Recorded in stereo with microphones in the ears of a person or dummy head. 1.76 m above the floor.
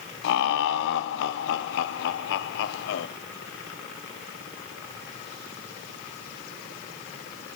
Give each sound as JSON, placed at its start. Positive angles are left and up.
{"t": 0.2, "sound": "laughter", "side_deg": 65, "distance_m": 1.1}